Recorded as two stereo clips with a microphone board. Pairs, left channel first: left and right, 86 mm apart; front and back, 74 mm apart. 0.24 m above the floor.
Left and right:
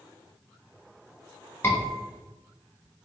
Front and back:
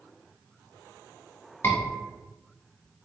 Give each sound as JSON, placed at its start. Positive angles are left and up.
{"t": 1.6, "sound": "a scream", "azimuth_deg": 45, "distance_m": 1.7}